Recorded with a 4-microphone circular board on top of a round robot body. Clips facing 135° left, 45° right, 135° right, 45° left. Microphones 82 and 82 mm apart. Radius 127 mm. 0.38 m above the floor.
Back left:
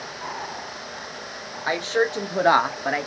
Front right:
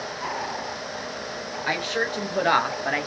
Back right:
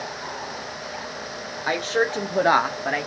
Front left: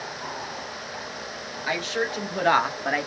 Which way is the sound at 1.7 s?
170° right.